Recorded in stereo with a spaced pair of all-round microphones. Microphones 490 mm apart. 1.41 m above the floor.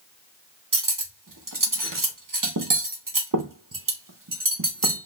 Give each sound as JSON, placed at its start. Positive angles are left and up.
{"t": 0.7, "sound": "cutlery clinking", "side_deg": -40, "distance_m": 0.8}